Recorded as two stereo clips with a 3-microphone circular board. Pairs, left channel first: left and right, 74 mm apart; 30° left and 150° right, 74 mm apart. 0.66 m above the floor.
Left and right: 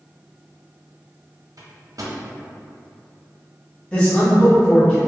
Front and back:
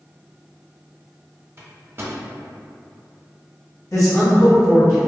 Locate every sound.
1.6 s a microwave: 100° right, 0.6 m
3.9 s a man speaking: 30° left, 1.1 m